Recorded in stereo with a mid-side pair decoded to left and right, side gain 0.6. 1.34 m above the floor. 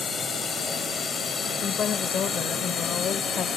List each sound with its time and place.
0.0 s a drone: 35° left
1.6 s a woman speaking: 50° left